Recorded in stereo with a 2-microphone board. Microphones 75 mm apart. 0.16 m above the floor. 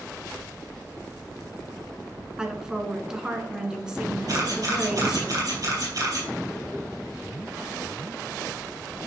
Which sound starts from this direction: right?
A camera shutter, at 4.3 s.